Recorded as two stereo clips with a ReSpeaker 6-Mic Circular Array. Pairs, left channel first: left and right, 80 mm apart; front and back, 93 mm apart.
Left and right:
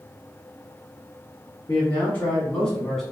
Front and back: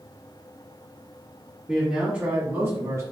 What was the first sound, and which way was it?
A man speaking, 100° left.